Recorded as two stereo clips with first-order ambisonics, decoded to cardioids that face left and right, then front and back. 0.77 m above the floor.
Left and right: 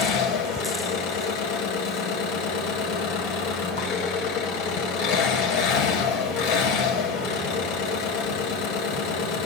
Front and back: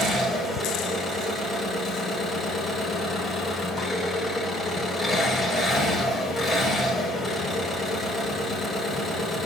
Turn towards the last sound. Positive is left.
turn(degrees=90)